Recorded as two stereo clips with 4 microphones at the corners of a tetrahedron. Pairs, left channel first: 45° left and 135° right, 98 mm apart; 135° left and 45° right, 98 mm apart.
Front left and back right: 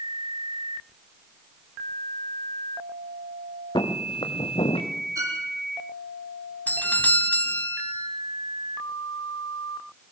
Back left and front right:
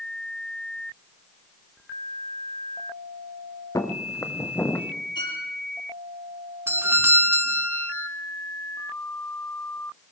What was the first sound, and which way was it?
Footsteps, 80° left.